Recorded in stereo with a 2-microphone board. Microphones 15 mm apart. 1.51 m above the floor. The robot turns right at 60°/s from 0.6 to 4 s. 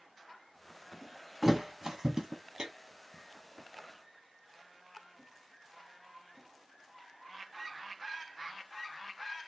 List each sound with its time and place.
1.4 s a thud: 20° right (ahead or behind), 1.2 m; by 2.7 s 45° right (ahead or behind), 1.2 m